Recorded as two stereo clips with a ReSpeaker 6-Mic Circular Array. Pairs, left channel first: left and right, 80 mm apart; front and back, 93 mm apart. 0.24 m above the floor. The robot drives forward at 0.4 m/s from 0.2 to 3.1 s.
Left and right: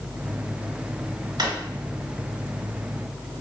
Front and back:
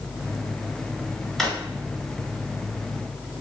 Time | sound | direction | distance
1.4 | a drawer | 90° right | 0.9 m